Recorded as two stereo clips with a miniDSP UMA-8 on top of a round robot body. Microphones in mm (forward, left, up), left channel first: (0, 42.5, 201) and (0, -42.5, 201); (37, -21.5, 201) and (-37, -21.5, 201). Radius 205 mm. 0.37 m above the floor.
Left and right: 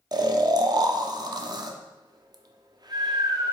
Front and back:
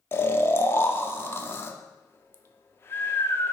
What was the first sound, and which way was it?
Snoring, 55° right.